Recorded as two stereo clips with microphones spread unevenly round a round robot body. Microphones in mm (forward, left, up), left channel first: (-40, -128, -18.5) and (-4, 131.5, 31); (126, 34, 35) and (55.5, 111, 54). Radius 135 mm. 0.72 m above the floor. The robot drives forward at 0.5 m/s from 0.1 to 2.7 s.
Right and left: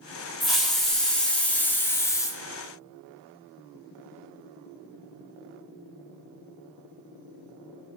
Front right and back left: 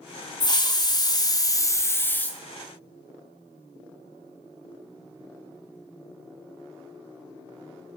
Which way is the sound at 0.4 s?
15° right.